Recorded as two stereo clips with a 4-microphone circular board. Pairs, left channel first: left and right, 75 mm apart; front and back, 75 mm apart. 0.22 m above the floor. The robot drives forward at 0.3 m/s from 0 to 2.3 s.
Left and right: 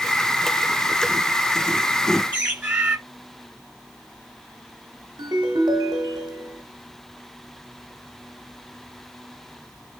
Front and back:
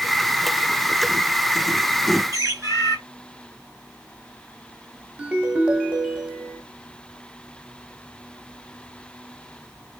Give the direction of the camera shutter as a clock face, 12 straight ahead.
No camera shutter in this recording.